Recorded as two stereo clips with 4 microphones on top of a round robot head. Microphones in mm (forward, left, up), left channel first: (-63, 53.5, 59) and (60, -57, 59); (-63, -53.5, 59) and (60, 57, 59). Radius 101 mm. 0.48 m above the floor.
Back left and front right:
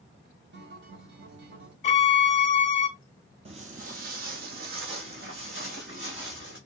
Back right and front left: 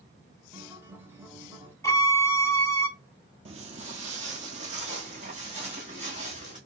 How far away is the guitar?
About 1.0 m.